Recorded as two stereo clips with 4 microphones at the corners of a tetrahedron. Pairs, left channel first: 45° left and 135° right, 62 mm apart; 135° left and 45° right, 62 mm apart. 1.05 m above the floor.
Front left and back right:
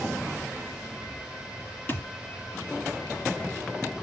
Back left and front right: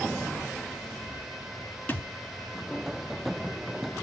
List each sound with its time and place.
1.9 s a thud: 80° left, 1.3 m